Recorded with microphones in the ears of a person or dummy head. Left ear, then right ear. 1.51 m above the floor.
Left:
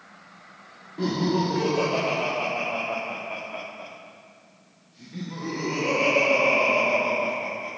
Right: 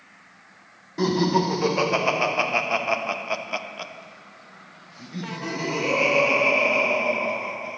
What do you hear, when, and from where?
1.0 s laughter: 50° right (ahead or behind), 1.7 m; by 7.8 s 10° left (ahead or behind), 2 m